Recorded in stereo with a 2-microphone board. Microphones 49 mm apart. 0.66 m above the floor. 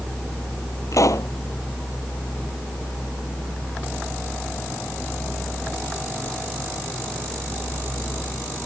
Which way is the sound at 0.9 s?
85° left.